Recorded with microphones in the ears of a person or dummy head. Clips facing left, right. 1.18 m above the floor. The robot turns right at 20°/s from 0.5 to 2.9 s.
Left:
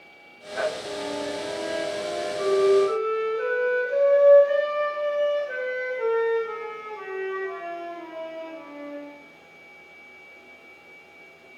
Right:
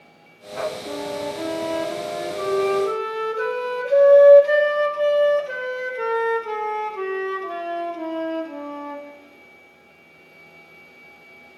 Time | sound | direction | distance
0.9 | a flute | 125° right | 1.6 m